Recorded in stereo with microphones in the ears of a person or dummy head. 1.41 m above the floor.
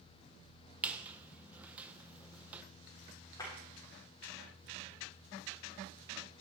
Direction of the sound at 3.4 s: 20° left (ahead or behind).